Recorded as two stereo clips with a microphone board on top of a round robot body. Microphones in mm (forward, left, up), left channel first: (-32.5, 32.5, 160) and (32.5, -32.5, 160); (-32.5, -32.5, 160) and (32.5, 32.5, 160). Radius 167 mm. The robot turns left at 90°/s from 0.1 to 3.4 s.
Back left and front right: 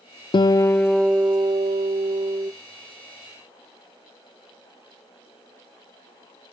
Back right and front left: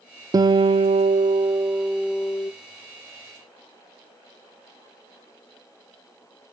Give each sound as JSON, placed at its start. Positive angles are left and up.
{"t": 0.3, "sound": "a guitar", "azimuth_deg": 100, "distance_m": 0.5}